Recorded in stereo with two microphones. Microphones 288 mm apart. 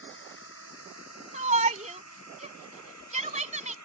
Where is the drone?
45° left (ahead or behind); by 3.9 s 75° left (ahead or behind).